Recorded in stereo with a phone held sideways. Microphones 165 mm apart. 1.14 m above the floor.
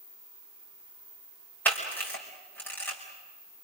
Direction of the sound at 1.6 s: 10° left (ahead or behind).